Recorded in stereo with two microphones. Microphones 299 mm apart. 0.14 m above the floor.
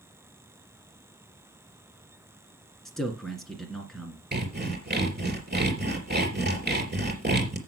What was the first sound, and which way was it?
A man speaking, centre (ahead or behind).